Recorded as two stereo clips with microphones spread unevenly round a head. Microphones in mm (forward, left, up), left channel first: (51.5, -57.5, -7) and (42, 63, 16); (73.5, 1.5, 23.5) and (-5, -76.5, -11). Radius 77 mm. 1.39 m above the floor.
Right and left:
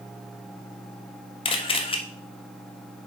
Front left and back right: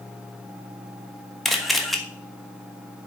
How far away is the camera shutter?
About 1.2 m.